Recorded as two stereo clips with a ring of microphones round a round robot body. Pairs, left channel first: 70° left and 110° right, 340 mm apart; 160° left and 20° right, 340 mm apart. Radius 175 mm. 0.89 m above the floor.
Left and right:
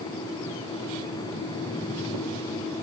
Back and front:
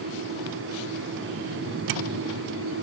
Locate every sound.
Only background noise.